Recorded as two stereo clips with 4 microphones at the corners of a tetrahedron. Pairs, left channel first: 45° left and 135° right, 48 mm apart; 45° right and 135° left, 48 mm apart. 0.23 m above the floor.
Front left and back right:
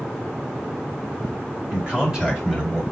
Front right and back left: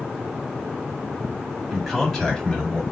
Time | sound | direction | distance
1.7 | a man speaking | 140° right | 1.7 m